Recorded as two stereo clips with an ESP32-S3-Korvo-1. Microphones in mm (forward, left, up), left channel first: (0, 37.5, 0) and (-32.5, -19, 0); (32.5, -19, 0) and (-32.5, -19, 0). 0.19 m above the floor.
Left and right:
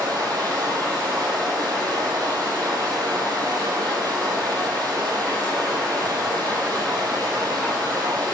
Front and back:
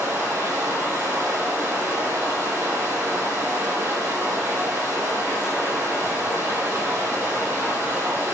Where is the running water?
130° right, 2 m.